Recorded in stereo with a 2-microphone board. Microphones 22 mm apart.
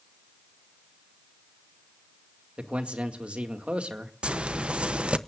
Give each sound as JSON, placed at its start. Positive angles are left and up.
{"t": 2.6, "sound": "a man speaking", "side_deg": -65, "distance_m": 2.0}
{"t": 4.2, "sound": "a zipper", "side_deg": -55, "distance_m": 0.7}